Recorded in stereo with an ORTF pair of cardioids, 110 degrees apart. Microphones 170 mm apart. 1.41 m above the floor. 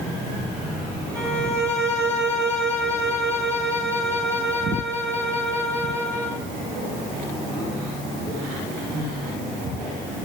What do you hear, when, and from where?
1.1 s a violin: 15° right, 6 m